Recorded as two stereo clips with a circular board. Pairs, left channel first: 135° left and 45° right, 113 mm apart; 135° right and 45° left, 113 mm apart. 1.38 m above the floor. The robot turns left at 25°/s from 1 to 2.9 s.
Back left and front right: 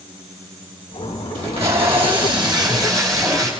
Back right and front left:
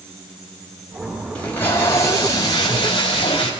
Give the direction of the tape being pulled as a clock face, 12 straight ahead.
2 o'clock.